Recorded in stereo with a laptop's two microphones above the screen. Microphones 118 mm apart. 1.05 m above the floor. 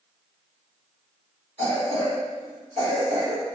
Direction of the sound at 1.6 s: 55° right (ahead or behind).